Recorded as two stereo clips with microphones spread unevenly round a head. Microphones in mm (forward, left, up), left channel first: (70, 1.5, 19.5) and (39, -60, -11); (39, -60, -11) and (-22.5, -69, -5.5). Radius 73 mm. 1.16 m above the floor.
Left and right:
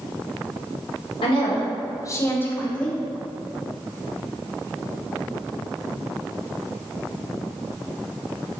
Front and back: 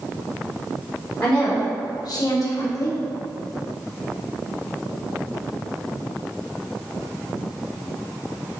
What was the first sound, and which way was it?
A woman speaking, 75° left.